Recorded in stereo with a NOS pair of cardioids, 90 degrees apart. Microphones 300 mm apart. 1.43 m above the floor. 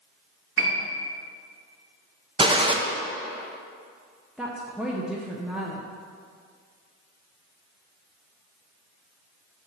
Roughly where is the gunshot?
Ahead.